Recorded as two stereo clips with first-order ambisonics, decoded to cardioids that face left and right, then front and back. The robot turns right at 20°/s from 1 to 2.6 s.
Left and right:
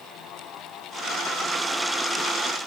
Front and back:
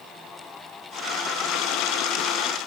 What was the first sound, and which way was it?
Only background noise.